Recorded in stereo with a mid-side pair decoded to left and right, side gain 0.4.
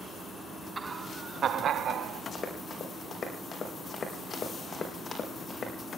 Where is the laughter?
25° right, 0.9 m; by 2.2 s 70° right, 2.5 m.